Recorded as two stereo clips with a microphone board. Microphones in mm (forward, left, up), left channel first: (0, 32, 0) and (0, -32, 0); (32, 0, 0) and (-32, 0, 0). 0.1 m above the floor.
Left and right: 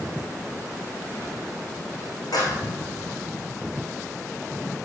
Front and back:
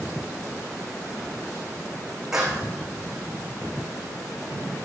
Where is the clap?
95° left, 5 m.